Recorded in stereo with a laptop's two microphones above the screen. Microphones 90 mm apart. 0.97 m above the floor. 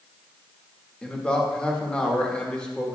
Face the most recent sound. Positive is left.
turn(degrees=10)  # may be behind; listen again after turning